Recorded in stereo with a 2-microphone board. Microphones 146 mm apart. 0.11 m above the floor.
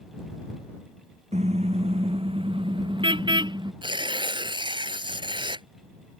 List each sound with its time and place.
1.3 s a car horn: 50° right (ahead or behind); by 3.7 s 30° right (ahead or behind)
3.8 s tearing paper: 35° right (ahead or behind)